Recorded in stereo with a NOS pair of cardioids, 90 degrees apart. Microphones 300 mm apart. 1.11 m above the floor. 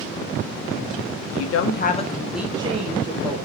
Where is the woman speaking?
65° left, 0.7 m; by 3.5 s 40° right, 1.1 m.